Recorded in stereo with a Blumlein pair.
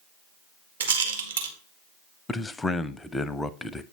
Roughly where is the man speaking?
Ahead.